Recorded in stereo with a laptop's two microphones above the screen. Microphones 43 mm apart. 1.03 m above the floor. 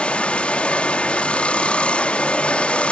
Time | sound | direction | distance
0.0 | running water | 25° left (ahead or behind) | 0.8 m